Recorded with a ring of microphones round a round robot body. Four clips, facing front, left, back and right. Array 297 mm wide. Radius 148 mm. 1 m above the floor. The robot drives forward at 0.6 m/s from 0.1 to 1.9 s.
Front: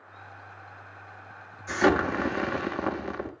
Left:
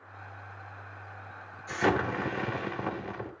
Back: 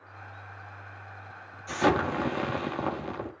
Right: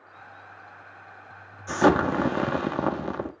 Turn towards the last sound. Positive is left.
turn(degrees=-85)